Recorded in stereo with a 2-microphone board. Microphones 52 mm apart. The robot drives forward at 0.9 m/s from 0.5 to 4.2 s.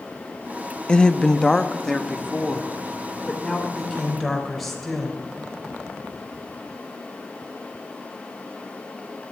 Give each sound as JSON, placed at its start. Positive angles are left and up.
{"t": 0.9, "sound": "a woman speaking", "side_deg": 20, "distance_m": 0.5}